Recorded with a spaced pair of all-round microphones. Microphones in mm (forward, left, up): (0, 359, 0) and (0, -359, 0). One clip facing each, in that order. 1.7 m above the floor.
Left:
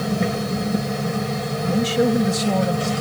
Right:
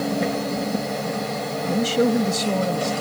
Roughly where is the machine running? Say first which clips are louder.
Even; left.